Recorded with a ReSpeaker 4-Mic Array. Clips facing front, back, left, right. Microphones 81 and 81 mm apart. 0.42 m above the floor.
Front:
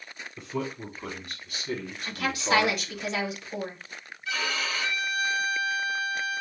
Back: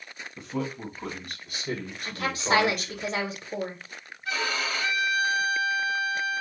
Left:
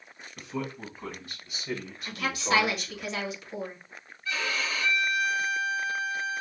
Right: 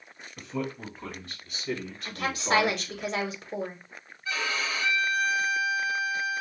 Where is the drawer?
I don't hear a drawer.